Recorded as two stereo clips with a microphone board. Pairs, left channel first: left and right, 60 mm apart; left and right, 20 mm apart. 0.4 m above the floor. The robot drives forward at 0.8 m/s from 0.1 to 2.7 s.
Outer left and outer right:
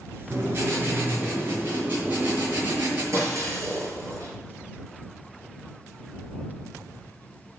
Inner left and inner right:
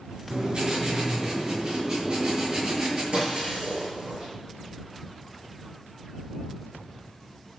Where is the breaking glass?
55° right (ahead or behind), 6.5 m.